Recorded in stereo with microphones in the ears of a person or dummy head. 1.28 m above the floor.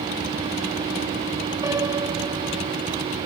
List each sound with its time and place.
1.6 s a piano: 15° right (ahead or behind), 1.5 m